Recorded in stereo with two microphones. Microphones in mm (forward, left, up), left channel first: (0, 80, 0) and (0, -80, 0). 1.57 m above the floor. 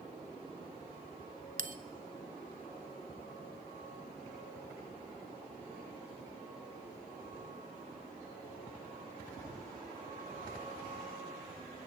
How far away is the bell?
About 1.5 m.